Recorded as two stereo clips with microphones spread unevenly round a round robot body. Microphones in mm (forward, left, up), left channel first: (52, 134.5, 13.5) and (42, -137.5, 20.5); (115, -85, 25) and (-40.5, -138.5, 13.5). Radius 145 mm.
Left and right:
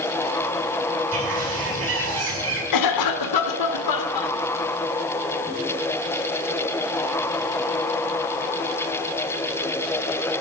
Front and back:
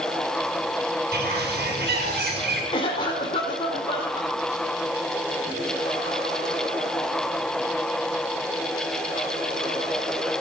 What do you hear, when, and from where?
1.1 s a bird: 145° right, 5.5 m
2.7 s a cough: 95° left, 2.0 m